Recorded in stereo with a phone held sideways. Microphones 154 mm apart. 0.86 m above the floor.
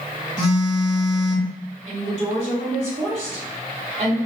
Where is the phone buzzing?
5° right (ahead or behind), 2.0 m.